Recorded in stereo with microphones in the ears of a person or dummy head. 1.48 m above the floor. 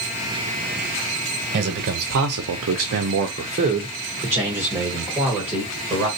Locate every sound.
1.5 s a man speaking: 60° right (ahead or behind), 0.9 m; by 6.1 s centre (ahead or behind), 1.8 m